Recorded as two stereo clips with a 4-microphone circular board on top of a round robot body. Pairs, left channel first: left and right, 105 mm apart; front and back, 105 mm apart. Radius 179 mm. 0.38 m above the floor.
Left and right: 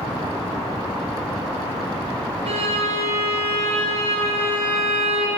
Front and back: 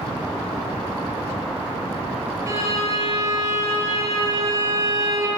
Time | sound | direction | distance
2.5 | a violin | 115° right | 5 m